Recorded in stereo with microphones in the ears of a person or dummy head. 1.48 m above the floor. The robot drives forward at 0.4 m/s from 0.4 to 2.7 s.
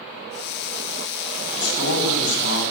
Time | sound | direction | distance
1.6 | a man speaking | 80° left | 9.5 m